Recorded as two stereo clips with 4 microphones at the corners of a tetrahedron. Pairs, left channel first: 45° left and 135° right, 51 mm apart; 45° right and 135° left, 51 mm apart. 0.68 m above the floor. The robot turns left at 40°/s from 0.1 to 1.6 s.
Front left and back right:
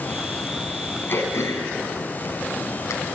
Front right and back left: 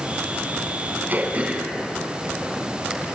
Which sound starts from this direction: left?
Throat clearing, at 1.1 s.